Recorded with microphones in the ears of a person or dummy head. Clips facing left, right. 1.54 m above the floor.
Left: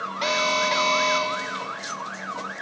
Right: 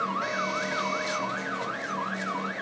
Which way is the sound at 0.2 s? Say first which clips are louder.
Left 6 dB; 75° left (ahead or behind).